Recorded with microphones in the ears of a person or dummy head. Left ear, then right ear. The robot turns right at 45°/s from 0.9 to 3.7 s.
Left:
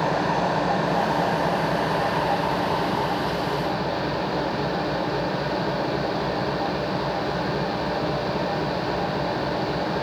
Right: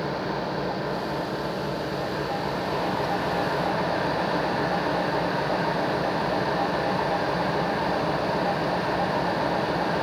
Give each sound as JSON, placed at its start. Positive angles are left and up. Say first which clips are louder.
{"t": 0.0, "sound": "an engine running", "louder": "left 6 dB", "azimuth_deg": 90, "distance_m": 4.0}